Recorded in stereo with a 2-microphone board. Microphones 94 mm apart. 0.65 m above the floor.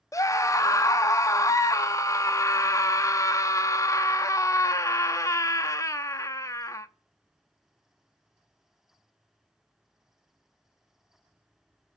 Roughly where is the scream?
Left.